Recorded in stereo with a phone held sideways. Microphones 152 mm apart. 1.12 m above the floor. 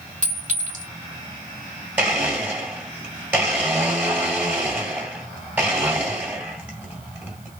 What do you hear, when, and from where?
0.2 s a clink: 55° right (ahead or behind), 1.9 m
2.0 s a blender: 10° right (ahead or behind), 1.8 m